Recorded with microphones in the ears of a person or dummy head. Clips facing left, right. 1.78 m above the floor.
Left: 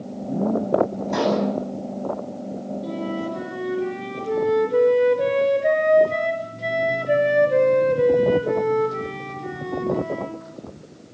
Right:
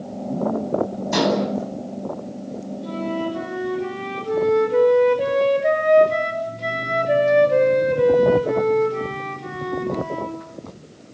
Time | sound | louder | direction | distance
1.1 | dishes clattering | right 2 dB | 50° right (ahead or behind) | 9.5 m
2.8 | a flute | right 3 dB | 5° left (ahead or behind) | 5 m